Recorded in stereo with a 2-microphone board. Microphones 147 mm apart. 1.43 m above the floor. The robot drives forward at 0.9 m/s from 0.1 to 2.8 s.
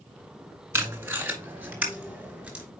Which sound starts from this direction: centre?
Tape being pulled, at 0.7 s.